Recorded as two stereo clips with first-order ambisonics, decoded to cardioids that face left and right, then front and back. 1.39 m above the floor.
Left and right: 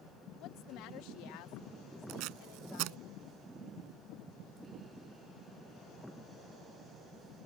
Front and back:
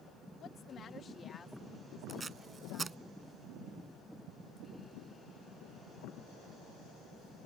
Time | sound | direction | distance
0.4 | a woman speaking | 55° left | ?
2.1 | tape being pulled | 110° right | ?